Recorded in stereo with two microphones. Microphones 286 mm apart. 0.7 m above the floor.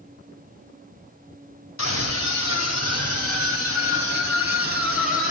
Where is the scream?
70° left (ahead or behind), 3 m; by 5.3 s 45° left (ahead or behind), 5.5 m.